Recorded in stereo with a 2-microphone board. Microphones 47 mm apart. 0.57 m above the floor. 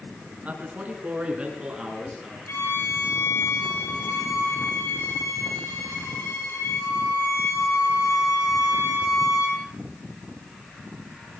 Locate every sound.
0.5 s a man speaking: 35° right (ahead or behind), 5 m; by 2.4 s 15° right (ahead or behind), 7 m
2.5 s a violin: 70° left (ahead or behind), 7 m